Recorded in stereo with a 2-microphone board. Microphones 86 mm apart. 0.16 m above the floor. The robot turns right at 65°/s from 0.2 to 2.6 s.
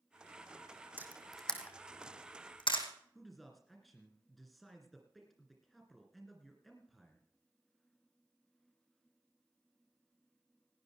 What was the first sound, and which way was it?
A camera shutter, 25° right (ahead or behind).